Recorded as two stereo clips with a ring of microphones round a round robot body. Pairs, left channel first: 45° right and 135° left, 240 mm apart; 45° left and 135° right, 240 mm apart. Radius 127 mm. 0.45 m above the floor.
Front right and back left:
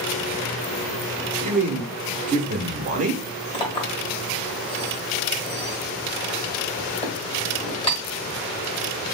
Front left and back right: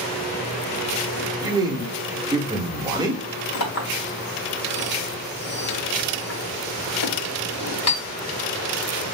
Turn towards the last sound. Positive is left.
turn(degrees=25)